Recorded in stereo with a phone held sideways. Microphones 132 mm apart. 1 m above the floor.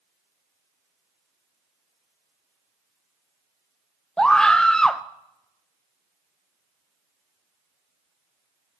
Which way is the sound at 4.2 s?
5° left (ahead or behind).